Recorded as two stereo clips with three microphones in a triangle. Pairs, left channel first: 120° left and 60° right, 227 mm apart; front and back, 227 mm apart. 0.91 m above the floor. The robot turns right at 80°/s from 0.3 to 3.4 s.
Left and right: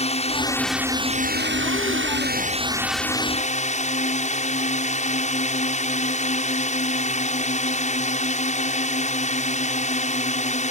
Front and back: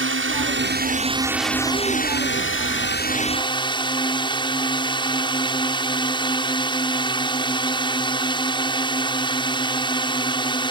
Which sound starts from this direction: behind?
A drone, at 0.0 s.